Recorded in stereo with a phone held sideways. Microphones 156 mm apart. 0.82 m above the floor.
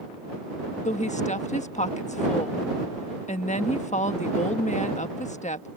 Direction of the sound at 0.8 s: 50° left (ahead or behind).